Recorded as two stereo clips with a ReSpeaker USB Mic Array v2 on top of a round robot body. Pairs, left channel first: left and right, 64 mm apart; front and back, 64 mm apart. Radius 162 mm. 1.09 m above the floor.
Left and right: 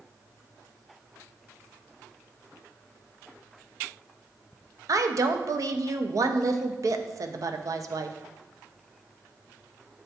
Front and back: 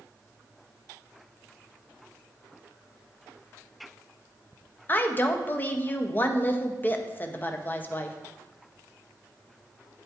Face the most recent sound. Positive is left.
turn(degrees=-60)